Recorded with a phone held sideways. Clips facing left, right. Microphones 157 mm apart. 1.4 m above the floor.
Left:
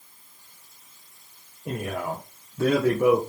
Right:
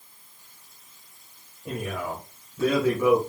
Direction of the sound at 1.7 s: 55° left (ahead or behind).